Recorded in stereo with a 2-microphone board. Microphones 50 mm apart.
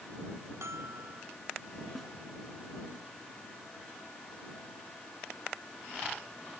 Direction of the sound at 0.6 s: 70° right (ahead or behind).